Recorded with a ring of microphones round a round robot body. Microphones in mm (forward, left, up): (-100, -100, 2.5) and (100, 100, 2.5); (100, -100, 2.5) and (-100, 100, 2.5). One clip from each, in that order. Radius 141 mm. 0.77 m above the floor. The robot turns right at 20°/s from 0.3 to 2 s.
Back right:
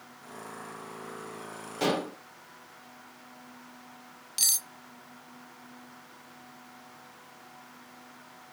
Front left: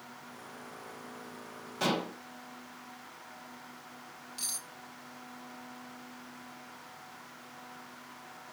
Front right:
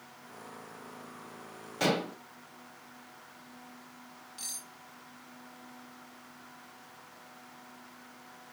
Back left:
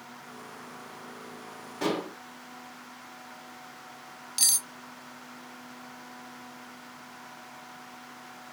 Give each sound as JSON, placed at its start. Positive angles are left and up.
{"t": 1.8, "sound": "dishes clattering", "azimuth_deg": -50, "distance_m": 3.0}
{"t": 4.4, "sound": "cutlery clinking", "azimuth_deg": 165, "distance_m": 0.5}